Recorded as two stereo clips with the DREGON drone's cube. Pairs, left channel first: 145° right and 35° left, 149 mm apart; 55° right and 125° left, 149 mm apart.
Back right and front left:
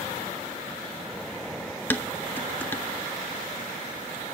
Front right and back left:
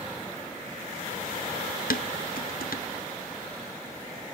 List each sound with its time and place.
1.9 s dishes clattering: 70° right, 0.7 m